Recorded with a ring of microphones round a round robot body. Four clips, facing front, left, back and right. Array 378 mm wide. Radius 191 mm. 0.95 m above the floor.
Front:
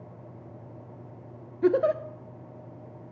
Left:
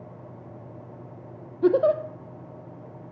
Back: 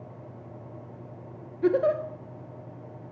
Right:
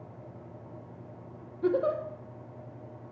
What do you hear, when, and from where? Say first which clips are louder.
1.6 s a giggle: left 7 dB, even; 65° left, 0.8 m